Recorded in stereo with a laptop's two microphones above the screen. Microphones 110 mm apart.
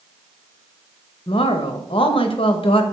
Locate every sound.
1.3 s a woman speaking: 55° left (ahead or behind), 0.8 m